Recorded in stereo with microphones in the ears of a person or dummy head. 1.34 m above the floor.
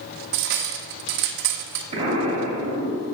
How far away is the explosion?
About 3 m.